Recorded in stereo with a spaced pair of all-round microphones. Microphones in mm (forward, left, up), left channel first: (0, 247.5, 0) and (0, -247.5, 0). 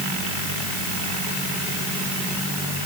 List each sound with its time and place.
Only background noise.